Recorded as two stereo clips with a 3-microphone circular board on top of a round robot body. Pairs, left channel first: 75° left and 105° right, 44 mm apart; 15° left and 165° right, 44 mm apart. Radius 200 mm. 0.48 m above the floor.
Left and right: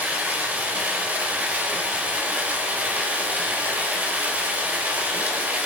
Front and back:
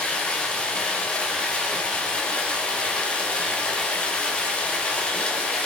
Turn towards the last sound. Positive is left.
turn(degrees=-50)